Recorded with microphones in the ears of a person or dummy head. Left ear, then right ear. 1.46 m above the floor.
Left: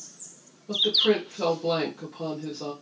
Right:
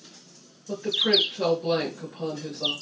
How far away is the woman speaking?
About 2 m.